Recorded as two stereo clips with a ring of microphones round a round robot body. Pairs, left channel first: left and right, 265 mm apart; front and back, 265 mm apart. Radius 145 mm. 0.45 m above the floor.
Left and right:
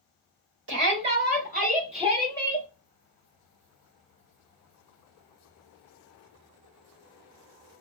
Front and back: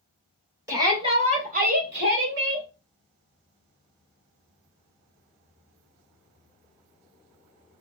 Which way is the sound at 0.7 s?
105° right.